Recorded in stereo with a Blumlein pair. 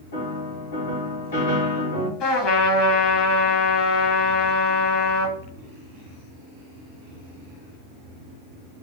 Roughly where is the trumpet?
Ahead left.